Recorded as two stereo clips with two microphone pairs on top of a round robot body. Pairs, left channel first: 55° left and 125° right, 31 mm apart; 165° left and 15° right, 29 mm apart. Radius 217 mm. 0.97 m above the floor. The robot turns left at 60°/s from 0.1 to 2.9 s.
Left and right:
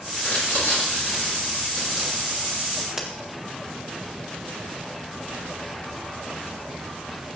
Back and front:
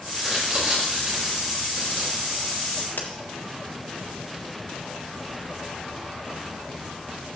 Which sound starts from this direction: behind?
A crack, at 3.0 s.